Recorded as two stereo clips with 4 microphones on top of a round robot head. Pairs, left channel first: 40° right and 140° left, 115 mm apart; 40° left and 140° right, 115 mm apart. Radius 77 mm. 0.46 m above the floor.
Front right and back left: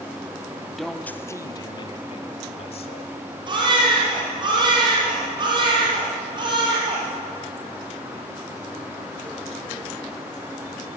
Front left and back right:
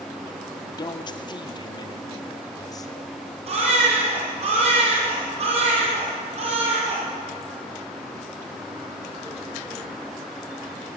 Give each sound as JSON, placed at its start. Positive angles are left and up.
{"t": 0.8, "sound": "a man speaking", "azimuth_deg": 50, "distance_m": 0.9}
{"t": 3.5, "sound": "a baby crying", "azimuth_deg": -170, "distance_m": 6.0}